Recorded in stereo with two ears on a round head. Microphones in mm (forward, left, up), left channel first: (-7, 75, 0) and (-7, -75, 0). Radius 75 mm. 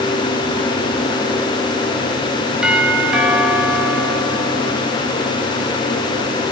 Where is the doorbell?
5° right (ahead or behind), 4.5 m.